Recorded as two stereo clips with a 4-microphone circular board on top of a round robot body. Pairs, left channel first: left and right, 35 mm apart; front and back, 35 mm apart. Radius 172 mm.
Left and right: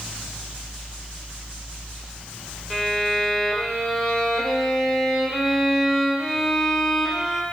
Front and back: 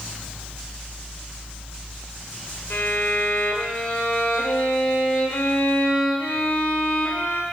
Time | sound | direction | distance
2.7 | a violin | 10° left | 1.7 m